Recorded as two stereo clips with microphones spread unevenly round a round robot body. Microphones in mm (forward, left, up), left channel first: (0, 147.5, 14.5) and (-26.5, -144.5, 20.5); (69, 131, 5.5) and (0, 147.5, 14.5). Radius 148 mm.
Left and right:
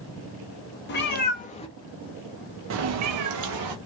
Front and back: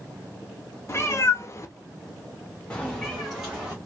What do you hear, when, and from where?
0.9 s a cat meowing: 30° left, 1.1 m; by 3.8 s 110° right, 1.1 m